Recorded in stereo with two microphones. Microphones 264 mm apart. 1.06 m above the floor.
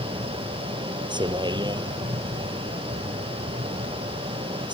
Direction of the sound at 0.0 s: 15° right (ahead or behind).